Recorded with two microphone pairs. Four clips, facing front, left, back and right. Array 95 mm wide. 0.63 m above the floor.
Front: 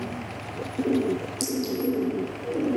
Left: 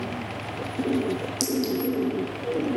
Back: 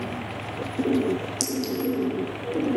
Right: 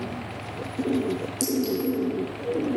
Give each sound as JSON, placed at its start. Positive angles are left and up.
{"t": 1.4, "sound": "a clink", "azimuth_deg": 130, "distance_m": 2.5}